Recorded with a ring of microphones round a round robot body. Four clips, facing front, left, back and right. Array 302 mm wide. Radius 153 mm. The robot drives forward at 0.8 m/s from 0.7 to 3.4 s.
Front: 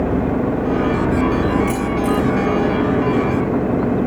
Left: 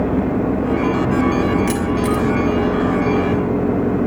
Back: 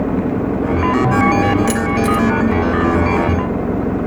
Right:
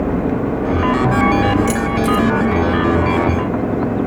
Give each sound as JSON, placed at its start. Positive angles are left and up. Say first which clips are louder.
{"t": 1.7, "sound": "keys jangling", "louder": "right 2 dB, back 2 dB", "azimuth_deg": 175, "distance_m": 3.0}